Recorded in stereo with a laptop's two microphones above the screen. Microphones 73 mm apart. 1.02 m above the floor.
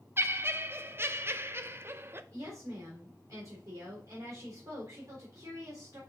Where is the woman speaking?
45° right (ahead or behind), 4 m.